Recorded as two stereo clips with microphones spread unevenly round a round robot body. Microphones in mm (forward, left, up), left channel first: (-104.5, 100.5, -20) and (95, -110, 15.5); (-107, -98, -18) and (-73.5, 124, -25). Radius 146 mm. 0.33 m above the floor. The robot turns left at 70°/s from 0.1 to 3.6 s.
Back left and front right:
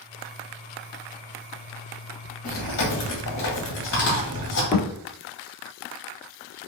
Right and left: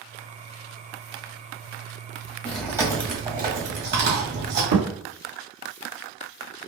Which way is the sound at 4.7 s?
60° left.